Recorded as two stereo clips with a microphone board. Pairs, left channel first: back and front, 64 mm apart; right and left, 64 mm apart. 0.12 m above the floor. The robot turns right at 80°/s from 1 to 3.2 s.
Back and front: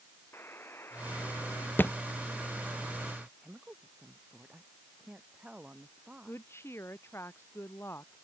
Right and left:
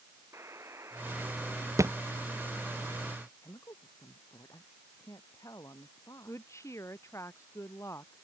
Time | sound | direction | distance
0.3 | a buzzer | 130° left | ?
1.8 | a thud | 120° left | ?
3.4 | a woman speaking | 70° right | ?
6.2 | a woman speaking | 135° right | ?